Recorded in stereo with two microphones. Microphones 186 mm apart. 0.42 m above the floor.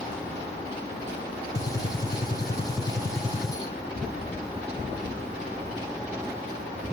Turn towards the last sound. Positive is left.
turn(degrees=20)  # may be behind; listen again after turning